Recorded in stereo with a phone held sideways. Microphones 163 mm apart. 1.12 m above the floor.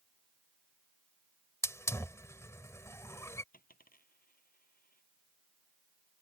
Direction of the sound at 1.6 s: 20° left (ahead or behind).